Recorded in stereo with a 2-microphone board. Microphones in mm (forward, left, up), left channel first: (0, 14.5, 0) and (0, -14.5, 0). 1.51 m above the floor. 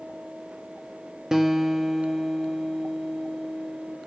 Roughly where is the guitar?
Centre.